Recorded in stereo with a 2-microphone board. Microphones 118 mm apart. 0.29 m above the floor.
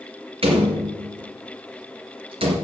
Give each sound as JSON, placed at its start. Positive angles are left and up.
{"t": 0.4, "sound": "a door slam", "side_deg": -55, "distance_m": 3.5}